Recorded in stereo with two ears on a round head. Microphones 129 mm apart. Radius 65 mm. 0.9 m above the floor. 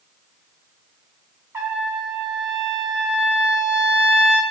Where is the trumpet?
20° right (ahead or behind), 0.6 m.